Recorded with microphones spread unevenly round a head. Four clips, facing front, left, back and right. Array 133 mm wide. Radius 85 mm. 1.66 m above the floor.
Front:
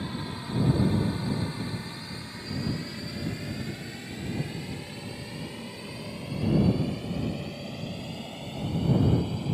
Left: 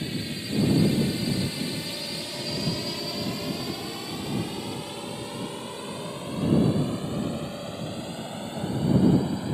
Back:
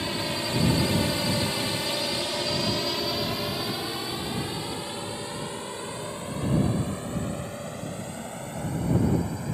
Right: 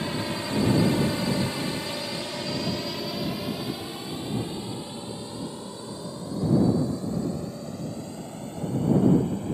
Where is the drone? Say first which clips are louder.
Right 3 dB, back 5 dB; 145° right; by 9.5 s 115° left.